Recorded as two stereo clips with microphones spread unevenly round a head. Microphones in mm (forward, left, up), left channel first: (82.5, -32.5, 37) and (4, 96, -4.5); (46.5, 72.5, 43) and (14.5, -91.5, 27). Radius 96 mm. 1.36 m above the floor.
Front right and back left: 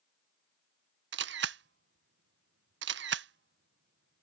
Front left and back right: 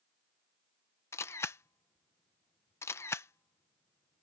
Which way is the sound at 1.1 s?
155° left.